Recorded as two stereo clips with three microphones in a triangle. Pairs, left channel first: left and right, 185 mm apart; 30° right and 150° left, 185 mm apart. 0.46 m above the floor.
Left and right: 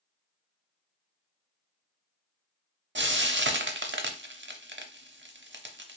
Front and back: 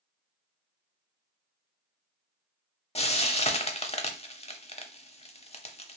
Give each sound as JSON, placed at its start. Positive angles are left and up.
{"t": 3.0, "sound": "frying", "azimuth_deg": -90, "distance_m": 0.6}